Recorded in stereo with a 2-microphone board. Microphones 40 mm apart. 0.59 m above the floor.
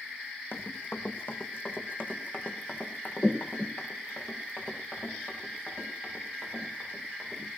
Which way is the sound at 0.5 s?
65° left (ahead or behind).